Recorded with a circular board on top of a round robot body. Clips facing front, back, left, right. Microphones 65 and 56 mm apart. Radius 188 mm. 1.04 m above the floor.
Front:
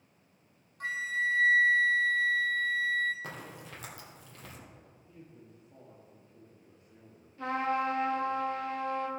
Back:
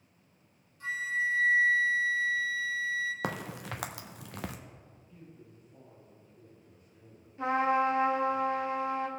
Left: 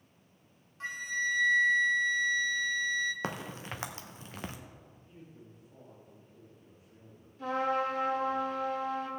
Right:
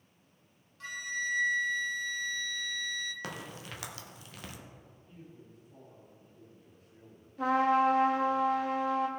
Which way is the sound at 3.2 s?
150° left.